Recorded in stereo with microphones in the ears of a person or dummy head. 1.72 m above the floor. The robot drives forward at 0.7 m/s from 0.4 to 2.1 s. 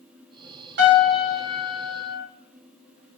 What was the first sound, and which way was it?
A piano, 55° right (ahead or behind).